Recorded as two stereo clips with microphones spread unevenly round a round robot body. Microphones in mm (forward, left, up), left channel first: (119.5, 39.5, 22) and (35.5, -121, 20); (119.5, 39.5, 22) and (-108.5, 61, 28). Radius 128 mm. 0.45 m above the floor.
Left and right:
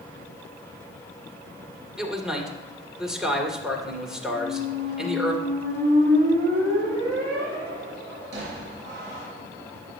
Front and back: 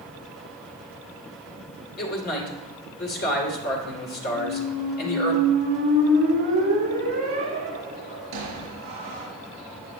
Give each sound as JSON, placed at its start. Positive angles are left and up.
{"t": 2.0, "sound": "a man speaking", "azimuth_deg": -30, "distance_m": 1.9}
{"t": 4.3, "sound": "a squeak", "azimuth_deg": -165, "distance_m": 4.5}